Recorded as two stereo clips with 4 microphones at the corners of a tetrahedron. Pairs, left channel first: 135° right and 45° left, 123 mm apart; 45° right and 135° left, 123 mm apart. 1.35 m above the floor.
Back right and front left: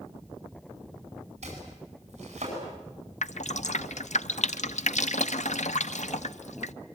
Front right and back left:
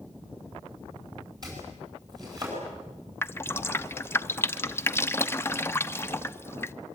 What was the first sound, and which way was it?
Chopping, 75° left.